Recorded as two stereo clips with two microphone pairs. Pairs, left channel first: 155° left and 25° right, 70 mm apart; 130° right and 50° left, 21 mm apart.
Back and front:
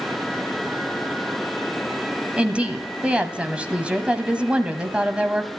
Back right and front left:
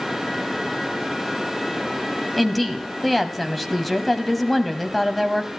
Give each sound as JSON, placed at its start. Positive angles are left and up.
{"t": 2.4, "sound": "a woman speaking", "azimuth_deg": -65, "distance_m": 1.0}